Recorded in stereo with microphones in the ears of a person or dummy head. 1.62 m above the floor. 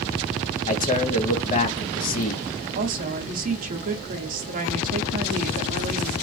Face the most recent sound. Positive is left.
turn(degrees=-45)  # may be behind; listen again after turning